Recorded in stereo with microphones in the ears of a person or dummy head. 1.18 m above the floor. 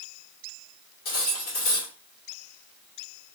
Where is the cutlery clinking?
55° left (ahead or behind), 1.6 m.